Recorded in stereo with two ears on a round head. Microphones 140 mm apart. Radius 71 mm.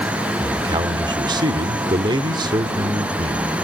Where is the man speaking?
30° right (ahead or behind), 1.1 m.